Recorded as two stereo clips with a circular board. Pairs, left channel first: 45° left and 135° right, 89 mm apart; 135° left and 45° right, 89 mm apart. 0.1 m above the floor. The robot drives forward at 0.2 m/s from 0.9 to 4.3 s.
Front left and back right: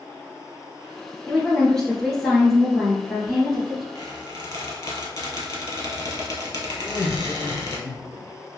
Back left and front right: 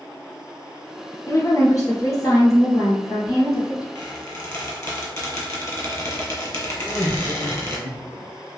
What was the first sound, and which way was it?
A woman speaking, 120° left.